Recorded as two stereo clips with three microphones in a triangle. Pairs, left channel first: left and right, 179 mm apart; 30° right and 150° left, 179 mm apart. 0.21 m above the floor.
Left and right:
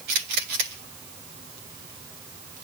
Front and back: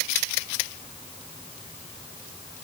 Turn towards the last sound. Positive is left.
No sound to turn to.